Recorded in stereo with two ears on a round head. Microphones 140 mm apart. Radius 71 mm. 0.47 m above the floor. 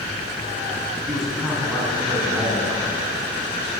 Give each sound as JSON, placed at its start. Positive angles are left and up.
{"t": 1.1, "sound": "a man speaking", "side_deg": 0, "distance_m": 4.5}